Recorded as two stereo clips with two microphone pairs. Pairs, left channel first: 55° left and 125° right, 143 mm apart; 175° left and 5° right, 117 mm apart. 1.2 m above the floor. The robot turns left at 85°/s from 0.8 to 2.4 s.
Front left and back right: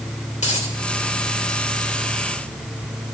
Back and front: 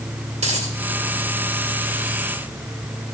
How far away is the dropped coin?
About 2.5 m.